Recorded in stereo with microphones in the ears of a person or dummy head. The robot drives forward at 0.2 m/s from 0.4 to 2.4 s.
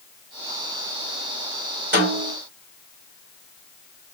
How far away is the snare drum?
About 1.7 m.